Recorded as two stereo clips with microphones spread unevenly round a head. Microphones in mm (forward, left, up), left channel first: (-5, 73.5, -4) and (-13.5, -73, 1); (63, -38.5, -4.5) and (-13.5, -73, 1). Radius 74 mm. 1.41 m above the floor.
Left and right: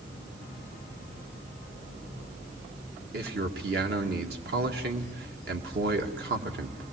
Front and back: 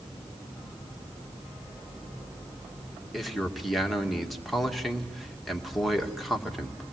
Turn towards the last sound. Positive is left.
turn(degrees=-65)